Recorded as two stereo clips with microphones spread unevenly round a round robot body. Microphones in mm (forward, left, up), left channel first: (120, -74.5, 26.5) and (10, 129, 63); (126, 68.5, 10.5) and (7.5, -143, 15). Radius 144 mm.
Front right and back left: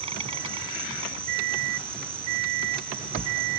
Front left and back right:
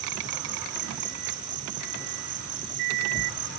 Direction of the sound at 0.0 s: 170° right.